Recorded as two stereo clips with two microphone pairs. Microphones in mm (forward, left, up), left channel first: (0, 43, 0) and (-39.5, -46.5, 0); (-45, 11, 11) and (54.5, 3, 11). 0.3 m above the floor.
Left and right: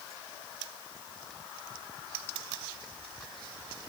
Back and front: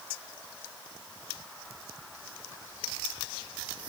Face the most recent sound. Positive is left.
No sound to turn to.